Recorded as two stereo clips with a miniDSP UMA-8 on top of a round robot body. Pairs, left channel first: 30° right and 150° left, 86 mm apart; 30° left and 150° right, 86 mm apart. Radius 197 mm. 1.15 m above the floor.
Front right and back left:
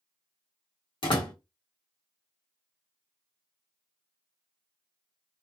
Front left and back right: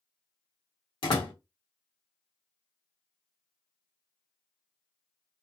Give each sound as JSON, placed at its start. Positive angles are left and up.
{"t": 1.0, "sound": "a door slam", "azimuth_deg": 0, "distance_m": 1.4}